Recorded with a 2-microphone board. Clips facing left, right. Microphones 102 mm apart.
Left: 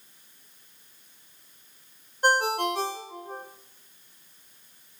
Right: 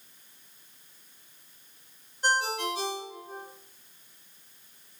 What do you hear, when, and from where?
2.2 s a ringtone: 55° left (ahead or behind), 0.7 m